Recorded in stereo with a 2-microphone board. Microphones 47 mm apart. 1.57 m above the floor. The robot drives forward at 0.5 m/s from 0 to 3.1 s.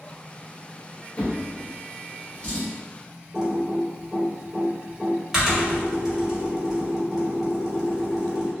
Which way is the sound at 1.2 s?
35° left (ahead or behind).